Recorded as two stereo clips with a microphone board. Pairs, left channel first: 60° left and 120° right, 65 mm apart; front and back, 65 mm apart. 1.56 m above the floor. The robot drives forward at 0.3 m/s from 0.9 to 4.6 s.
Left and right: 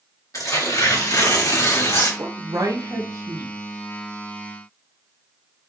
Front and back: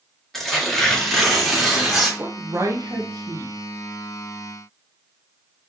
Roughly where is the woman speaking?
Behind right.